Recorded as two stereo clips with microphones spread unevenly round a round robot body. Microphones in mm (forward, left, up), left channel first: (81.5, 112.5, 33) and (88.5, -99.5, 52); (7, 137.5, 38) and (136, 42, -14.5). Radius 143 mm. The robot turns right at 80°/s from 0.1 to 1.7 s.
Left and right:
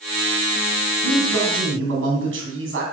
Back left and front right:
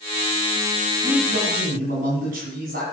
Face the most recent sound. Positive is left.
turn(degrees=-75)